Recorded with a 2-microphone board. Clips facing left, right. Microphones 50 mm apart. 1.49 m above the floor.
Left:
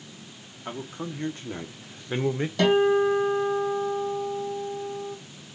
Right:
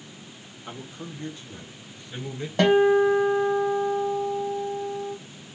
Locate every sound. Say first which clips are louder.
0.7 s a man speaking: left 4 dB; 35° left (ahead or behind), 1.3 m; by 2.5 s 45° left (ahead or behind), 0.6 m
2.6 s a guitar: right 2 dB; 40° right (ahead or behind), 1.7 m